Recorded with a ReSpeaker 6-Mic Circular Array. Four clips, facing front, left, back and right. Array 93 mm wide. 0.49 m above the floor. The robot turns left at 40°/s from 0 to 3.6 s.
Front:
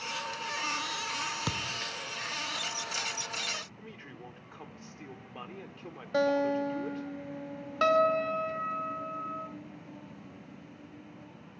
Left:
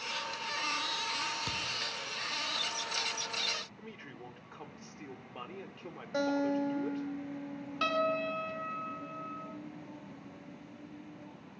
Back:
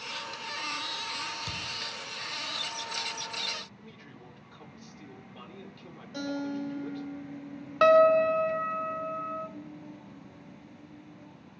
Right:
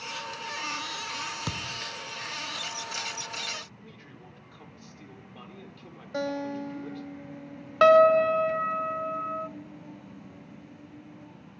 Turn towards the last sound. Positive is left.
turn(degrees=-115)